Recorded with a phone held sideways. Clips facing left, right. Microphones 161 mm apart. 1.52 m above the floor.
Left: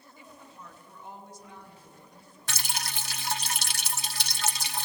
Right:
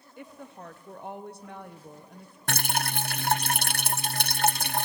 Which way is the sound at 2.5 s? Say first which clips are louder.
Right 8 dB; 60° right (ahead or behind).